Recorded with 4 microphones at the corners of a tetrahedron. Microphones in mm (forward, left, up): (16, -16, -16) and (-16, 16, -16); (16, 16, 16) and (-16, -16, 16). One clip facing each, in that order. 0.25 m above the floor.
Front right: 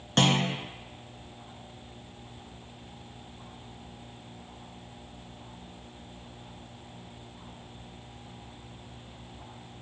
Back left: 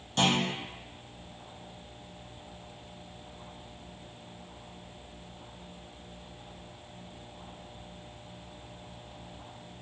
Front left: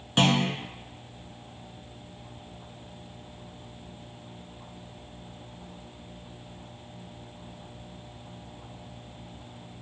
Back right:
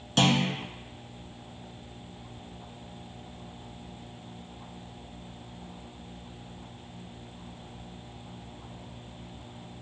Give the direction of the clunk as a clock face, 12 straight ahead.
1 o'clock.